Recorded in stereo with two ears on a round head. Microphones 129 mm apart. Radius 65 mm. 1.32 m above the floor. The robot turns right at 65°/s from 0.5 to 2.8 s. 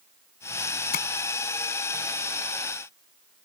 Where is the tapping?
65° left (ahead or behind); by 1.1 s 70° left (ahead or behind).